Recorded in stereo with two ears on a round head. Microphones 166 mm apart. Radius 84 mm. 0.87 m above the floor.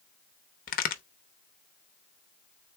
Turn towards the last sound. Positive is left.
turn(degrees=45)  # may be behind; listen again after turning